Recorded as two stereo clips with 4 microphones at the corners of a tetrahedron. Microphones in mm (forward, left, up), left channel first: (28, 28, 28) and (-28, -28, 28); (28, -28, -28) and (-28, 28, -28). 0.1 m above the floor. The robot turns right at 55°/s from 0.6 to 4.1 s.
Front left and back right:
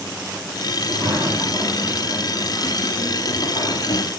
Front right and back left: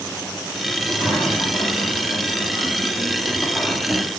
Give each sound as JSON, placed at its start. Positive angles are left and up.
{"t": 0.8, "sound": "a sliding door", "azimuth_deg": -150, "distance_m": 5.0}